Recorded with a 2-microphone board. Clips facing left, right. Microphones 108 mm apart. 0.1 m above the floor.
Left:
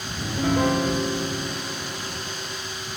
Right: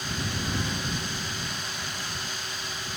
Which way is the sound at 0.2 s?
65° left (ahead or behind).